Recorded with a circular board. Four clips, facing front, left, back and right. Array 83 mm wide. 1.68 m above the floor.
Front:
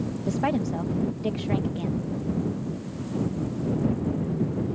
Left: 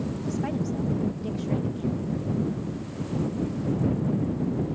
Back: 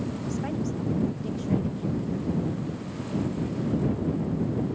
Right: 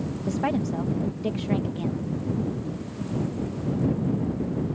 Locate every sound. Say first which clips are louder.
0.3 s a woman speaking: right 5 dB, front 7 dB; 40° right